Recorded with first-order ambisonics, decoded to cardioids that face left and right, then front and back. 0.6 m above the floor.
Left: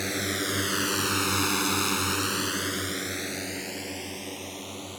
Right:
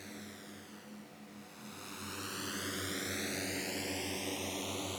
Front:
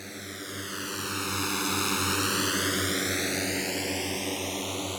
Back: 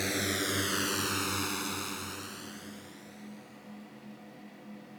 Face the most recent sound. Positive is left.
turn(degrees=0)